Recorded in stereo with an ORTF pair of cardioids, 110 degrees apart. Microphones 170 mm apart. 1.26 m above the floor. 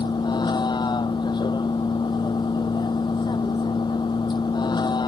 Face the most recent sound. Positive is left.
turn(degrees=25)